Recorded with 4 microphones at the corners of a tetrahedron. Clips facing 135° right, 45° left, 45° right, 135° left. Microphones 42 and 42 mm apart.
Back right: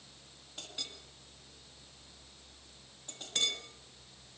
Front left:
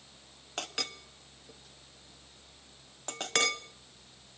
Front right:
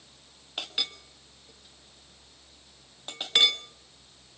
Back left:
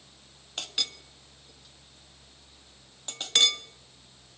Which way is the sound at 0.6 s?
35° left.